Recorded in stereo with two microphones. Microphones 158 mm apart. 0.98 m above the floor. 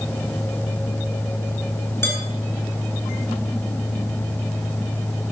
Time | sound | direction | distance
2.0 | dishes clattering | 15° left (ahead or behind) | 4 m